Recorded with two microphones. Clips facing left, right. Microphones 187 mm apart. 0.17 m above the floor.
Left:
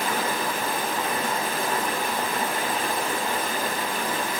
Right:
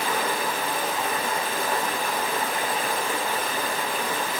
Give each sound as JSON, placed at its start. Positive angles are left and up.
{"t": 0.0, "sound": "running water", "side_deg": 50, "distance_m": 1.5}